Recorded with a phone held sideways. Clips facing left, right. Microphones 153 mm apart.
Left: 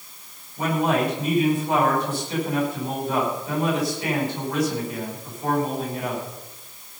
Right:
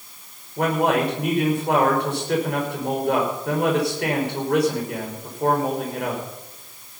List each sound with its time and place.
0.6 s a man speaking: 65° right (ahead or behind), 5.5 m